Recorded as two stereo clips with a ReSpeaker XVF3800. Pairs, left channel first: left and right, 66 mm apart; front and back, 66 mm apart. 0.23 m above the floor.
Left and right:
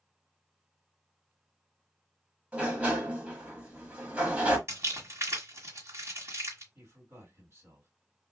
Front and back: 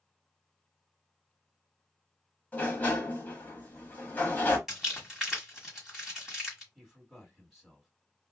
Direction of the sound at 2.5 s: 40° right.